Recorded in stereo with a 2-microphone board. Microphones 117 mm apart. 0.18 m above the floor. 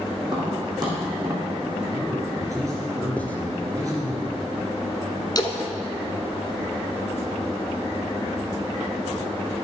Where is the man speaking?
30° right (ahead or behind), 3 m.